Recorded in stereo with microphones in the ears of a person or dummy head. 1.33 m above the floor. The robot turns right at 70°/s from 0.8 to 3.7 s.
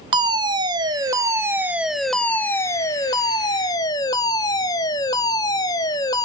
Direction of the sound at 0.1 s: 20° right (ahead or behind).